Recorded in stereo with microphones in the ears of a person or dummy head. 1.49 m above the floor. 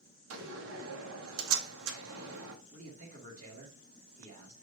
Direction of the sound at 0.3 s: 80° right.